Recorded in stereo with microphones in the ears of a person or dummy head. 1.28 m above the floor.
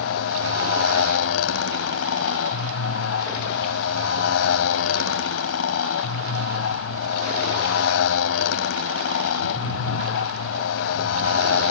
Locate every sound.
0.0 s a motorcycle: 80° left